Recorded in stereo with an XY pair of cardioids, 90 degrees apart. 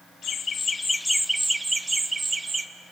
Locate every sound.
0.2 s laughter: 65° left, 0.5 m; by 2.7 s 35° right, 1.3 m